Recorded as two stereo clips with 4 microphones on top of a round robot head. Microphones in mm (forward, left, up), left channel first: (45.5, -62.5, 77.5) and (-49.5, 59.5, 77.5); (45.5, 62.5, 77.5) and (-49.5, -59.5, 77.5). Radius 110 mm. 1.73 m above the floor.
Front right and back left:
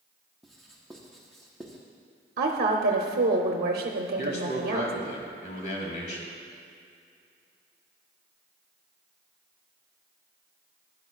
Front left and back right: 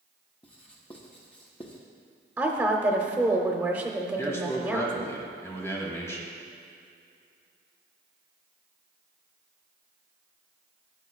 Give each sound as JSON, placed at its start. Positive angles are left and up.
{"t": 0.4, "sound": "writing", "azimuth_deg": 35, "distance_m": 0.8}
{"t": 2.4, "sound": "a woman speaking", "azimuth_deg": 150, "distance_m": 0.7}
{"t": 4.2, "sound": "a man speaking", "azimuth_deg": -20, "distance_m": 2.0}